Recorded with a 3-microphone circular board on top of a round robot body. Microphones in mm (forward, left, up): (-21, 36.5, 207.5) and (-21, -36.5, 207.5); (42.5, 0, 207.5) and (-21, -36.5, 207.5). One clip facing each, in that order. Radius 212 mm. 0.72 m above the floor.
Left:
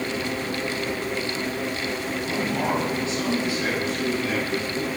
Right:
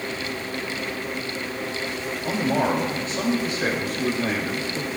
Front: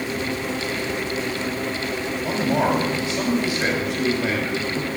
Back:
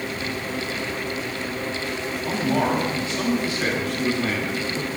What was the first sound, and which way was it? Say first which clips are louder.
A man speaking: right 4 dB, front 1 dB; 45° right.